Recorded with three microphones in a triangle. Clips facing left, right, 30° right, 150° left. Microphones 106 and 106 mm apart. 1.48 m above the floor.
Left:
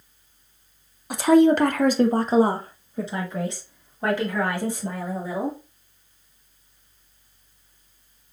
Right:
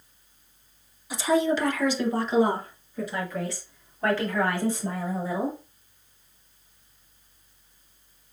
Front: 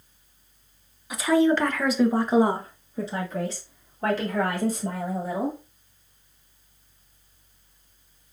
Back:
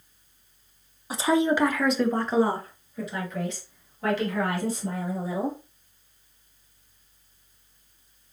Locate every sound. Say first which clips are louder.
1.1 s a woman speaking: left 7 dB, front 2 dB; 100° left, 0.7 m; by 5.6 s 10° left, 2.5 m